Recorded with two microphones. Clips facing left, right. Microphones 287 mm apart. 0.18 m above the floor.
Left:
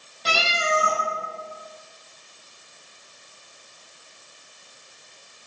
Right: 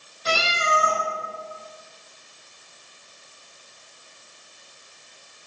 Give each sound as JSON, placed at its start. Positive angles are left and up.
{"t": 0.2, "sound": "a cat meowing", "side_deg": 80, "distance_m": 2.5}